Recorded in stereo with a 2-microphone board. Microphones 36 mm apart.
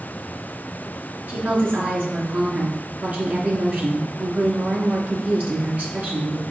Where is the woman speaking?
50° right (ahead or behind), 2.5 m.